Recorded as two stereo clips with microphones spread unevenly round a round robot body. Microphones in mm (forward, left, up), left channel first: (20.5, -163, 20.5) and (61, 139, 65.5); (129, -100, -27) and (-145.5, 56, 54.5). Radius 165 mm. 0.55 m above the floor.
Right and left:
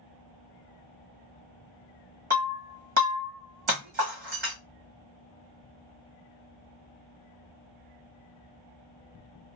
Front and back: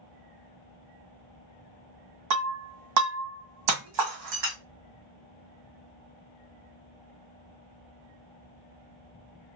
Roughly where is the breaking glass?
Behind left.